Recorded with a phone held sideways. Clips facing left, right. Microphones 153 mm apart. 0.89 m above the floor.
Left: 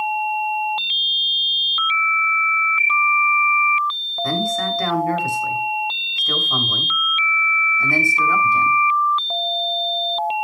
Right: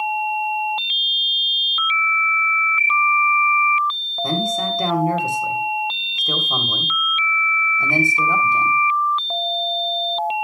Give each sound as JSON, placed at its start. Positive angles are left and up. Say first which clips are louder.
{"t": 4.2, "sound": "a man speaking", "louder": "even", "side_deg": -20, "distance_m": 3.0}